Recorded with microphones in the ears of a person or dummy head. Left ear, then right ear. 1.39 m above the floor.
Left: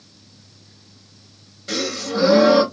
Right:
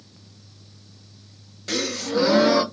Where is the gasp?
30° right (ahead or behind), 0.7 m.